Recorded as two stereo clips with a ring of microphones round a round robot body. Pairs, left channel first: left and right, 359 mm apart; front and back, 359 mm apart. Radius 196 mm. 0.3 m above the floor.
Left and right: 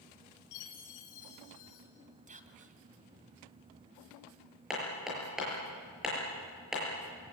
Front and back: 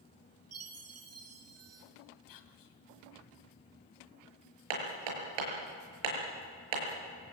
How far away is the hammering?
About 6.5 m.